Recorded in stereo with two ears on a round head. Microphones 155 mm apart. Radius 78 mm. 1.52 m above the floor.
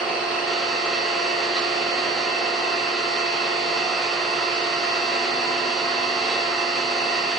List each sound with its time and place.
0.0 s an engine running: 5° left (ahead or behind), 3.5 m